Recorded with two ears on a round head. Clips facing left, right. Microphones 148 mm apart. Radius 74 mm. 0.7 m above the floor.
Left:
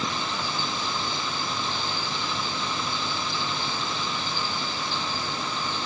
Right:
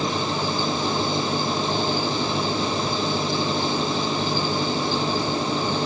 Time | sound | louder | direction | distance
0.0 | an engine running | right 6 dB | 35° right (ahead or behind) | ?